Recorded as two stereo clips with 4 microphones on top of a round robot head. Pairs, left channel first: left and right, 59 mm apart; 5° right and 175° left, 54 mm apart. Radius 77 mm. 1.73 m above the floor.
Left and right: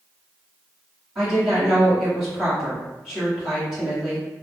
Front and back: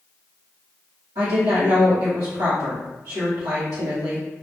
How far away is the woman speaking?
About 1.1 m.